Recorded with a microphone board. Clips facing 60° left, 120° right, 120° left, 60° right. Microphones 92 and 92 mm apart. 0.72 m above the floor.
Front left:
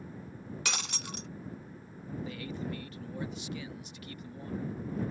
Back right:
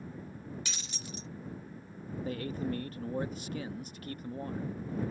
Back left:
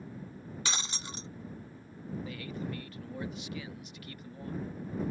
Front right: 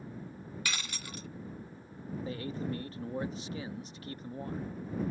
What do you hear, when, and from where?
0.7 s breaking glass: 55° left
2.2 s a man speaking: 100° right